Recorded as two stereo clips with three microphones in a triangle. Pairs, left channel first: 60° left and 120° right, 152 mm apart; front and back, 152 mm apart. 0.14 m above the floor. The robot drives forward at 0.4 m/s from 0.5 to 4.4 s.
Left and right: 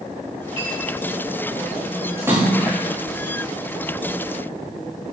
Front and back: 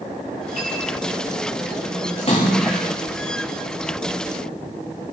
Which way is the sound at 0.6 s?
175° right.